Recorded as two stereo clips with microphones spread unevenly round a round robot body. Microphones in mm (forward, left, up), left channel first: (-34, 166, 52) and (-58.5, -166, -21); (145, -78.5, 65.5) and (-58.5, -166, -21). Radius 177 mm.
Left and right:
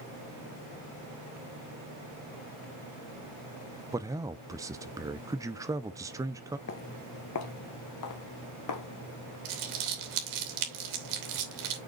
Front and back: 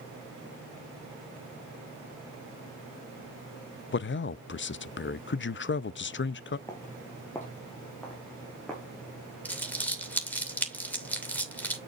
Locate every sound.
3.9 s a man speaking: 30° right, 0.6 m
6.7 s footsteps: 70° left, 1.0 m; by 9.3 s 105° left, 2.5 m
9.4 s crumpling: 65° right, 3 m